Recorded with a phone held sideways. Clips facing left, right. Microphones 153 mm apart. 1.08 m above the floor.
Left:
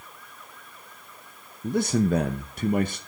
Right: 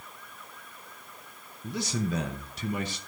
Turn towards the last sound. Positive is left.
turn(degrees=55)  # may be behind; listen again after turning